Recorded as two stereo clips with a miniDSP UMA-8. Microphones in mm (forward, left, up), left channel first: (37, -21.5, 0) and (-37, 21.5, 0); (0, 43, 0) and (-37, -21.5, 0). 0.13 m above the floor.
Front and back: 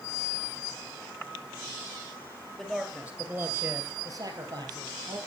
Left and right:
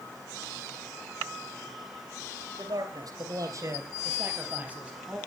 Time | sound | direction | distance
2.6 | a man speaking | 120° right | 3 m